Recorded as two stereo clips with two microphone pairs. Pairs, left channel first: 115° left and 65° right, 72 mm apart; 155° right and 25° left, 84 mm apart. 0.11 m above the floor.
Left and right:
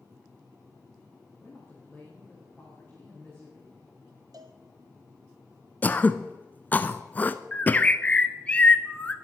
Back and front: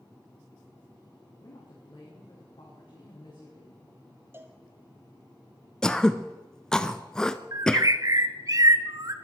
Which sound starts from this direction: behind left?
Throat clearing, at 5.8 s.